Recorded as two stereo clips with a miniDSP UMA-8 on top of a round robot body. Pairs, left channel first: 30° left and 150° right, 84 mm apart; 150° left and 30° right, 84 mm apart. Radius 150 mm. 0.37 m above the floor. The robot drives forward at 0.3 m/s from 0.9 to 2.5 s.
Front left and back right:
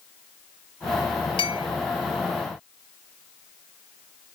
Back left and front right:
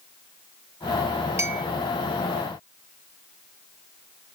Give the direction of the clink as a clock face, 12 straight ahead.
11 o'clock.